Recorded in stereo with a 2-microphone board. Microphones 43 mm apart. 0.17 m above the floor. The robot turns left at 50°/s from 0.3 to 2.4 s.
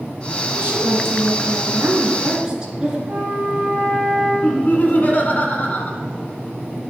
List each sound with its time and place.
0.6 s a woman speaking: 65° right, 2 m; by 3.0 s 160° right, 2 m
3.1 s a flute: 30° right (ahead or behind), 2.5 m
4.4 s laughter: 40° left (ahead or behind), 1.6 m